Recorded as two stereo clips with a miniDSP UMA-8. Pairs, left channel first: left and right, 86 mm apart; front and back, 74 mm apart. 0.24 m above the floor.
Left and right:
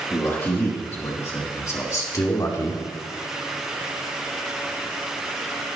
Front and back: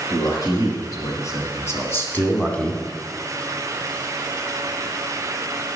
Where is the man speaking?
25° left, 4 m; by 2.8 s 80° left, 1.7 m.